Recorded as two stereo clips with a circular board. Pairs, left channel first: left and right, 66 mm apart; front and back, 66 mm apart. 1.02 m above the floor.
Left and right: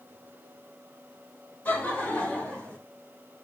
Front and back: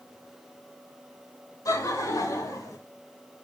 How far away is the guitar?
I don't hear a guitar.